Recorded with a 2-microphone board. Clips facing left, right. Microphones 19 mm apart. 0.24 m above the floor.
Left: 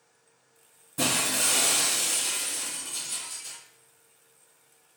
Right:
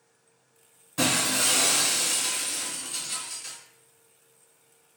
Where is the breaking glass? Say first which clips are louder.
Right 2 dB; 50° right (ahead or behind), 1.1 m.